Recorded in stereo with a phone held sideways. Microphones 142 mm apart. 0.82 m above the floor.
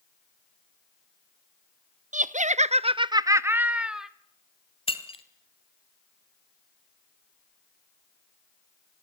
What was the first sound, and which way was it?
Laughter, 60° right (ahead or behind).